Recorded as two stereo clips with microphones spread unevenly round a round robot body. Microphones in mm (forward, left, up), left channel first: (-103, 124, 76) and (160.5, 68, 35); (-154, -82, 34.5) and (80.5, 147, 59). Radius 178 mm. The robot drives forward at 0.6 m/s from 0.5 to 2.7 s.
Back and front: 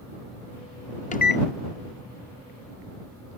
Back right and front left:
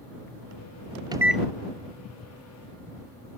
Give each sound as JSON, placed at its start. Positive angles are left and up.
{"t": 1.1, "sound": "a microwave", "azimuth_deg": 120}